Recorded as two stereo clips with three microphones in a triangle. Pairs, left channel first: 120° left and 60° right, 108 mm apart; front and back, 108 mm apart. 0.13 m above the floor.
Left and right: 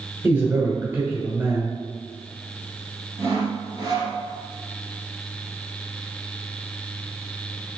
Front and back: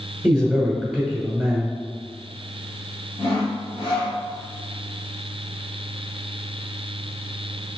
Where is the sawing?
10° right, 1.7 m.